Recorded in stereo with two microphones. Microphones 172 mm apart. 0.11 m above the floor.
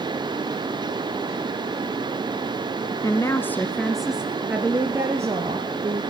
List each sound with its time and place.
3.0 s a woman speaking: 20° left (ahead or behind), 1.2 m; by 6.0 s 20° right (ahead or behind), 3 m